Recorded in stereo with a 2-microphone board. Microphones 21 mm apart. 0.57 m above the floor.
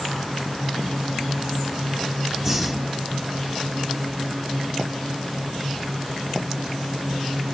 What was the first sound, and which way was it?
Breathing, 10° right (ahead or behind).